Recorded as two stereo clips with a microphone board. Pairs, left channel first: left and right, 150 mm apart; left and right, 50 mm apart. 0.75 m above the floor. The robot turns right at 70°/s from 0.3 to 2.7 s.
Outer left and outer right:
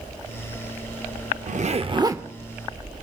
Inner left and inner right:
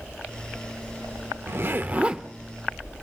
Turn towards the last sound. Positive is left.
turn(degrees=15)